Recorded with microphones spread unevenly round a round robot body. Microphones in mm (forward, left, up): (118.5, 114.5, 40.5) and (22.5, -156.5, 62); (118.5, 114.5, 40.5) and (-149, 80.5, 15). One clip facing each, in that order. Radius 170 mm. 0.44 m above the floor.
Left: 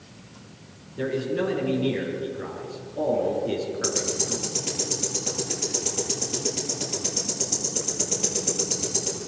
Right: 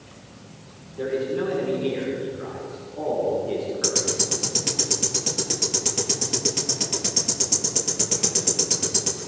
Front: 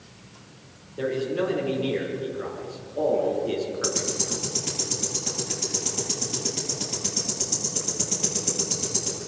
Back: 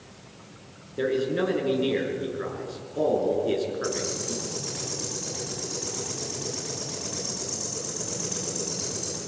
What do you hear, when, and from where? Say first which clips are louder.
1.0 s a man speaking: right 1 dB, back 1 dB; 130° left, 7 m
3.8 s ticking: right 1 dB, even; 50° right, 9.5 m